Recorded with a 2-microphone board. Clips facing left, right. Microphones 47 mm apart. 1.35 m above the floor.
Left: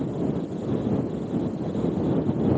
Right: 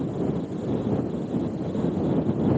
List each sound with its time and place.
Only background noise.